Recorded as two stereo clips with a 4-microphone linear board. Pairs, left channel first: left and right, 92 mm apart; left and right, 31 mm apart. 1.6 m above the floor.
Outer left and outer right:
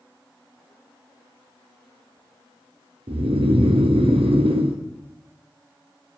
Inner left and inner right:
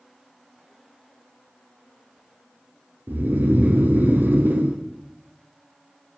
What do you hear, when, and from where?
3.1 s snoring: 90° right, 0.8 m